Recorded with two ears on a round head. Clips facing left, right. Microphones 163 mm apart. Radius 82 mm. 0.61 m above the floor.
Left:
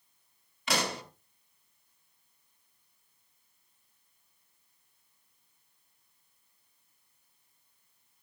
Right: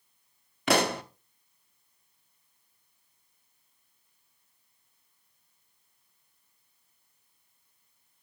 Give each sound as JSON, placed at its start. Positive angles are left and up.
{"t": 0.7, "sound": "a pop", "side_deg": -45, "distance_m": 1.1}